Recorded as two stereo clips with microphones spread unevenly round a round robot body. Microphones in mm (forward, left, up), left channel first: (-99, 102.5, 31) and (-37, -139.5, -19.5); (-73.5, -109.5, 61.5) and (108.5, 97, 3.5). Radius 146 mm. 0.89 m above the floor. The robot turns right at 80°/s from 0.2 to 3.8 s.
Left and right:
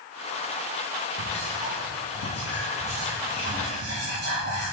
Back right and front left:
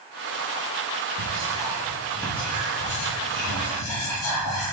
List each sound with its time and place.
1.2 s whispering: 55° left, 1.5 m; by 4.7 s 95° right, 1.5 m